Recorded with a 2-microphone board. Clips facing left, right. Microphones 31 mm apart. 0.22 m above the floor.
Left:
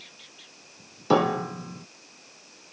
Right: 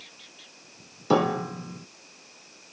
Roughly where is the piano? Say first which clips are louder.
Left 1 dB; centre.